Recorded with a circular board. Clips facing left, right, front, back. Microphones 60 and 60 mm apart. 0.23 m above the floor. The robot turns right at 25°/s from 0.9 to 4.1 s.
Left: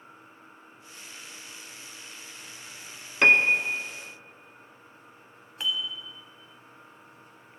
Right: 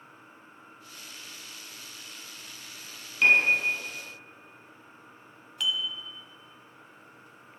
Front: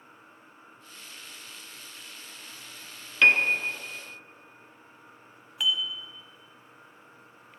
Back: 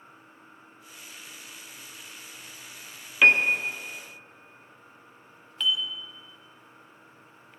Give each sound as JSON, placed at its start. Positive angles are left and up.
{"t": 3.2, "sound": "a piano", "azimuth_deg": 100, "distance_m": 0.6}
{"t": 5.6, "sound": "dishes clattering", "azimuth_deg": 75, "distance_m": 0.9}